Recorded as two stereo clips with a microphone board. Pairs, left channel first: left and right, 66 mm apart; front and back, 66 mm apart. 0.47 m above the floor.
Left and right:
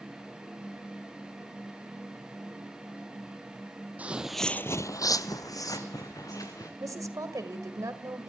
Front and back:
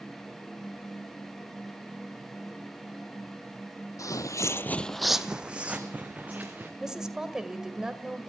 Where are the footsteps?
25° right, 1.1 m; by 6.7 s 115° left, 3 m.